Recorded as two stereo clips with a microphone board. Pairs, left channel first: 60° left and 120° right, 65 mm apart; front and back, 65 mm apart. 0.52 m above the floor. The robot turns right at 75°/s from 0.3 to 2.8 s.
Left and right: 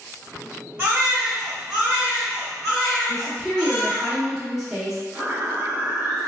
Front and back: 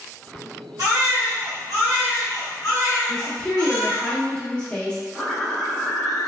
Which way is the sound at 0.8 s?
170° right.